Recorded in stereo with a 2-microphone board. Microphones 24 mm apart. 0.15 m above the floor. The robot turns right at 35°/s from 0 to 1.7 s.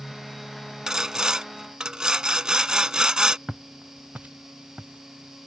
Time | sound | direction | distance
0.9 | sawing | 25° right (ahead or behind) | ?
3.5 | footsteps | 25° right (ahead or behind) | ?